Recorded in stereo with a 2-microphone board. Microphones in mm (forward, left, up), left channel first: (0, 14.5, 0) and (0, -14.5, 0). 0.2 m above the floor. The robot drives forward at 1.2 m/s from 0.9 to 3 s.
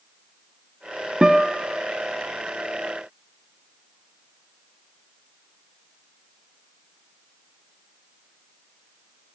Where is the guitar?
25° right (ahead or behind), 0.8 m; by 1.8 s 15° right (ahead or behind), 1.4 m.